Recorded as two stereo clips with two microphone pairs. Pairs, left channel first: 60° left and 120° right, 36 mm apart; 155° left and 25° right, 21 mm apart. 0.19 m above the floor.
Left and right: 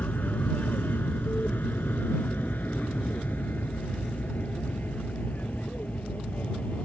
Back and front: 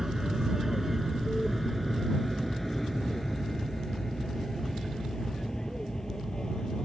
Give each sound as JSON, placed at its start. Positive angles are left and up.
{"t": 0.0, "sound": "an aircraft", "azimuth_deg": 40}